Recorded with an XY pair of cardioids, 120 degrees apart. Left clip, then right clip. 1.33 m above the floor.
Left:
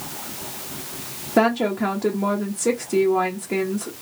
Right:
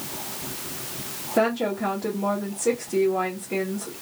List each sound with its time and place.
1.4 s a woman speaking: 35° left, 0.8 m